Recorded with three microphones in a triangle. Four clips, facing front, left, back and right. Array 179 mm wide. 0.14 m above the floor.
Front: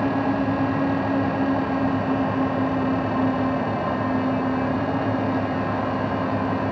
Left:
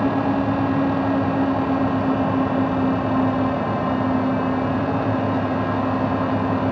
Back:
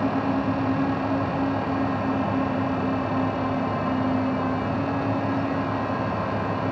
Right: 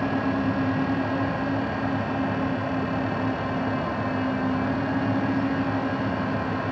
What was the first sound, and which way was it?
Only background noise.